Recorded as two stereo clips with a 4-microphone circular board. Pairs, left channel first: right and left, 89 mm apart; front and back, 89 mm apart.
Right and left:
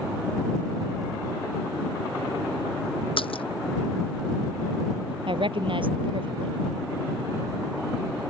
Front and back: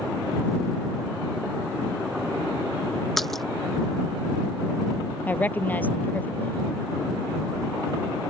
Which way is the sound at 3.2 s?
90° right.